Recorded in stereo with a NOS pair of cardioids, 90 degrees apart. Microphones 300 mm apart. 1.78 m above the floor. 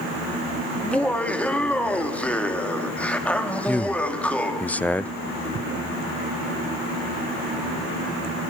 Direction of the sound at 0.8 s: 5° left.